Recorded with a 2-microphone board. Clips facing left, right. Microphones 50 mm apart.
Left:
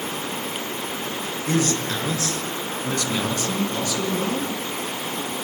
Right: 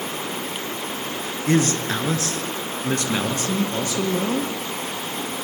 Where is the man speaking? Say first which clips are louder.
Right 3 dB; 40° right (ahead or behind), 4 m; by 4.5 s 35° right (ahead or behind), 6 m.